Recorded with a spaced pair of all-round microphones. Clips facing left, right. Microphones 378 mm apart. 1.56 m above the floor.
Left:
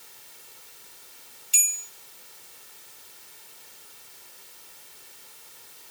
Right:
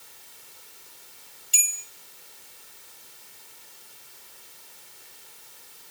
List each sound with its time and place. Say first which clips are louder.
1.5 s a bell: right 1 dB; 10° right (ahead or behind), 1.5 m